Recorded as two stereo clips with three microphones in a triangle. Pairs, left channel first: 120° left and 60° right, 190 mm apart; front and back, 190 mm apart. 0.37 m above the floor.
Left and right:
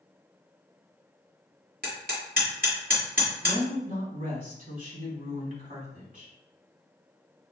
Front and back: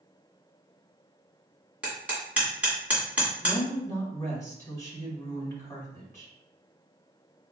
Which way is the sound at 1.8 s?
95° right.